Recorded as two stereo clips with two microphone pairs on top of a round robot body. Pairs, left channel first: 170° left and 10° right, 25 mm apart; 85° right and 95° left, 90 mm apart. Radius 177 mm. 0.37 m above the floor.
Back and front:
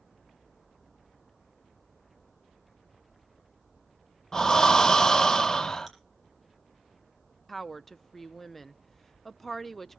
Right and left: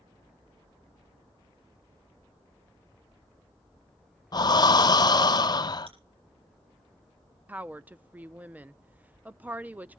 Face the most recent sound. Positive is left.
turn(degrees=125)